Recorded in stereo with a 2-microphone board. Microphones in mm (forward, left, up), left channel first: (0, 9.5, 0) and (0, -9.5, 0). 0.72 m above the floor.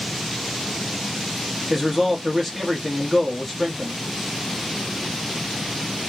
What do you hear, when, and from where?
1.7 s a man speaking: 10° left (ahead or behind), 1.0 m